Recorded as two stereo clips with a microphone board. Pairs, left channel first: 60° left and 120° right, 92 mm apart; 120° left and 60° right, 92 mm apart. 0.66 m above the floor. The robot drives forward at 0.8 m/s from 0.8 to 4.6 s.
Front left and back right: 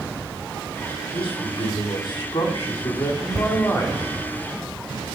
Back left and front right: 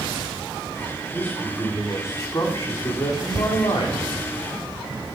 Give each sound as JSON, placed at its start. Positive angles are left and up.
{"t": 1.1, "sound": "a man speaking", "azimuth_deg": 50, "distance_m": 2.5}
{"t": 3.3, "sound": "a thud", "azimuth_deg": -70, "distance_m": 1.5}